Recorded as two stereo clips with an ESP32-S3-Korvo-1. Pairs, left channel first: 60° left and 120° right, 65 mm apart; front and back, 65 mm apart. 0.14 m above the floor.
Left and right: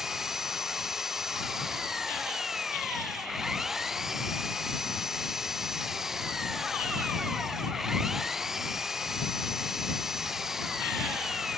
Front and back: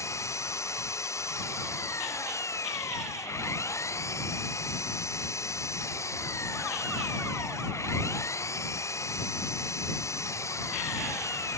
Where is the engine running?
40° right.